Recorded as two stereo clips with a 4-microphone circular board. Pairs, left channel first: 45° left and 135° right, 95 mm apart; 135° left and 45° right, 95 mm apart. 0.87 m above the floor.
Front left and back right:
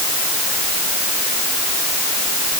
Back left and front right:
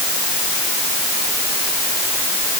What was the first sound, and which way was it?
Only background noise.